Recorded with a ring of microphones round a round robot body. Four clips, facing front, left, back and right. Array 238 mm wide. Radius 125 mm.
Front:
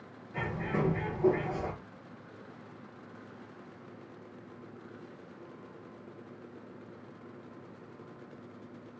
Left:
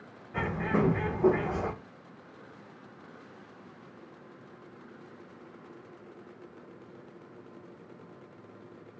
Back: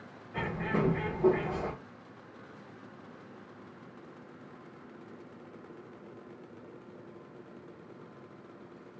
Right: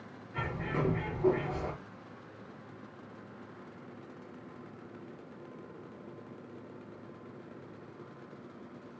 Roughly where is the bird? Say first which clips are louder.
Left 6 dB, back 1 dB; left.